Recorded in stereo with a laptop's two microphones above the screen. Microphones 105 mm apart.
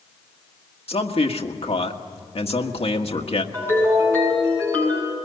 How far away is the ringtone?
About 7.5 m.